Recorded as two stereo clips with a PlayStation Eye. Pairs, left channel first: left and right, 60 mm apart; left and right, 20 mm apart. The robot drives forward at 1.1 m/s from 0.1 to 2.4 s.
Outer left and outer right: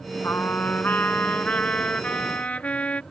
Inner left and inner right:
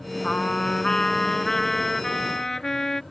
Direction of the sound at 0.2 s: 40° left (ahead or behind).